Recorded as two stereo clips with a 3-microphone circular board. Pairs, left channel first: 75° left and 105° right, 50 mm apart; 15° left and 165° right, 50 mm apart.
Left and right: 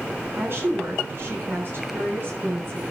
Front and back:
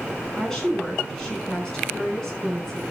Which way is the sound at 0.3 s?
65° right.